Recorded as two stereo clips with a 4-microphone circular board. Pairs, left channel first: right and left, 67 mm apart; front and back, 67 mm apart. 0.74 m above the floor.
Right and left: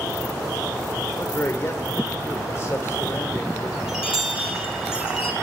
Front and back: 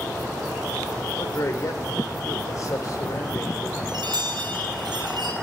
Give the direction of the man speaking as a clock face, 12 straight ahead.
1 o'clock.